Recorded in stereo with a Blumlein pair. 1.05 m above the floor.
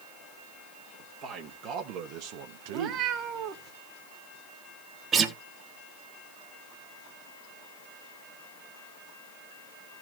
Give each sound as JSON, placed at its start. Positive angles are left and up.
{"t": 1.0, "sound": "a man speaking", "azimuth_deg": -35, "distance_m": 1.8}
{"t": 2.7, "sound": "a cat meowing", "azimuth_deg": -35, "distance_m": 1.3}
{"t": 5.1, "sound": "a guitar", "azimuth_deg": -20, "distance_m": 1.1}